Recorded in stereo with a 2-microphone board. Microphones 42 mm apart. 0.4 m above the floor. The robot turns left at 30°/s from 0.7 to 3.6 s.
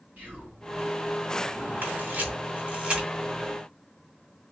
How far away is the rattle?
I don't hear a rattle.